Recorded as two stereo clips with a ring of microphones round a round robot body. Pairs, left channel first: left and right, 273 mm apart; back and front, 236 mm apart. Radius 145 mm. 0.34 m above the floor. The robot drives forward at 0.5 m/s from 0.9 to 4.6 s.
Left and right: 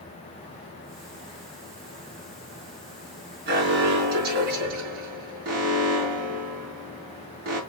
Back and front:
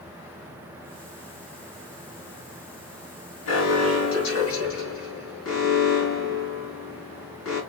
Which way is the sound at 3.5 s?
145° right.